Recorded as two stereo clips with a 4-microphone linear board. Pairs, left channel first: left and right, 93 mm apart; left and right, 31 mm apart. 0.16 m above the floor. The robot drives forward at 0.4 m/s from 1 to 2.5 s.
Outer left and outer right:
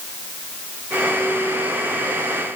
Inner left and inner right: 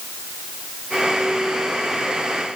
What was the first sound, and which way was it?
Only background noise.